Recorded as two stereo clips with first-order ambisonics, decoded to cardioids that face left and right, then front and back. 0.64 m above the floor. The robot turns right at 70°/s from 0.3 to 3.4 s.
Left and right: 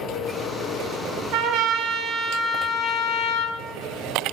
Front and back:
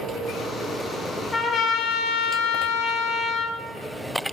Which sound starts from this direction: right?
A trumpet, at 1.3 s.